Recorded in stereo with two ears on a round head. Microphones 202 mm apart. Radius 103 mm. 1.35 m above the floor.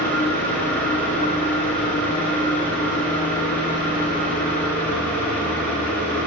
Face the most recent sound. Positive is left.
turn(degrees=10)  # may be behind; listen again after turning